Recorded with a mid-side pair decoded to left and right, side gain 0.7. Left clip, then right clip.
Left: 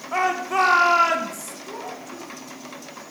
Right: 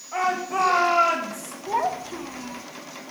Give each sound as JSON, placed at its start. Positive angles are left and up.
{"t": 0.1, "sound": "a shout", "azimuth_deg": 70, "distance_m": 3.5}
{"t": 1.7, "sound": "a child speaking", "azimuth_deg": -50, "distance_m": 1.0}